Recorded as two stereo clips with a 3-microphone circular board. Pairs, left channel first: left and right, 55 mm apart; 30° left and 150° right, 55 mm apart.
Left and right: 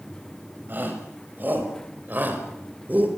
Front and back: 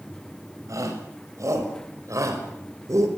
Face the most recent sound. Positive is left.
turn(degrees=-145)